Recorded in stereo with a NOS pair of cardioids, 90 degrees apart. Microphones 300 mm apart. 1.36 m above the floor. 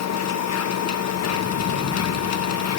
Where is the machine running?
55° left, 1.2 m.